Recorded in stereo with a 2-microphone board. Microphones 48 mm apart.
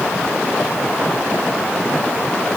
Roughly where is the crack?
I don't hear a crack.